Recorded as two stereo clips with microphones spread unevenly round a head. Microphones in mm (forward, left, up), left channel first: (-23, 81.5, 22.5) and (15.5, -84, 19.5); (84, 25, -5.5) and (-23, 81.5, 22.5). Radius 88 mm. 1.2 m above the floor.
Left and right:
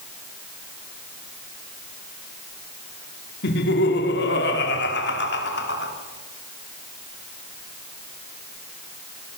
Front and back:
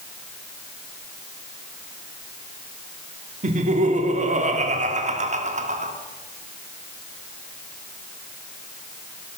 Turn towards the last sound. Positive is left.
turn(degrees=130)